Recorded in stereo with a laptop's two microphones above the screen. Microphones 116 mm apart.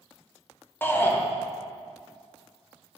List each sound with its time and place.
0.8 s a shout: 15° left (ahead or behind), 0.8 m